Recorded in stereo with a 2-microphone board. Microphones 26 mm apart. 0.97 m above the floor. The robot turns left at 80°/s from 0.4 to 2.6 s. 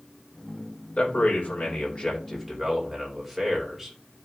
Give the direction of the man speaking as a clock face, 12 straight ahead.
8 o'clock.